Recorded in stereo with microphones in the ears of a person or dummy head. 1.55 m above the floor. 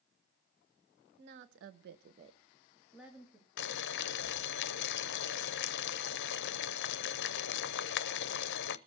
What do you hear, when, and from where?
1.2 s a woman speaking: 55° right (ahead or behind), 1.2 m; by 3.5 s centre (ahead or behind), 2.5 m
3.6 s boiling: 60° left (ahead or behind), 0.6 m